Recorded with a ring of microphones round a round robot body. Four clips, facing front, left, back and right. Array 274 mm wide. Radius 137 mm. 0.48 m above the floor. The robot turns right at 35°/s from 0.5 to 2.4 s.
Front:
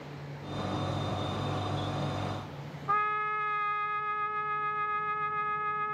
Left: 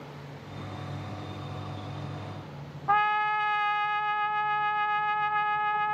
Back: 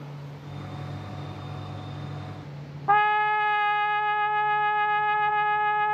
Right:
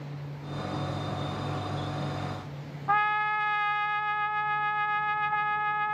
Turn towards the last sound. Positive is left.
turn(degrees=-170)